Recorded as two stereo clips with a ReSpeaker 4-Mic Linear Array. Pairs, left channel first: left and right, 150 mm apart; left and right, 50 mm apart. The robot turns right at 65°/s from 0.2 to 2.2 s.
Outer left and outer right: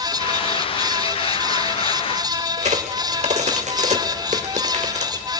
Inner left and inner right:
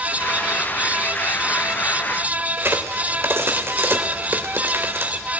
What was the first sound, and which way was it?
A crack, 50° right (ahead or behind).